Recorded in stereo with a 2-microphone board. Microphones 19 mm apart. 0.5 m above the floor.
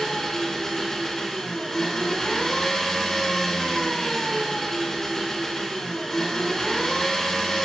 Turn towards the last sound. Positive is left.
turn(degrees=25)  # may be behind; listen again after turning